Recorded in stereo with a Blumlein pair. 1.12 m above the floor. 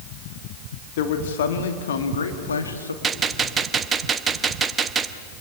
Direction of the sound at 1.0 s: 55° left.